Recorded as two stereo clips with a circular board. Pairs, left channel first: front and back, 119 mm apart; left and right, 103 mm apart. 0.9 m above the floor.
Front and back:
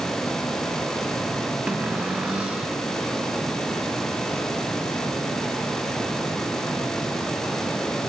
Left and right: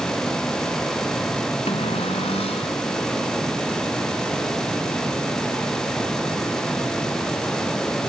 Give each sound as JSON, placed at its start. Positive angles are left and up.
{"t": 1.7, "sound": "a cupboard door", "azimuth_deg": 100, "distance_m": 3.0}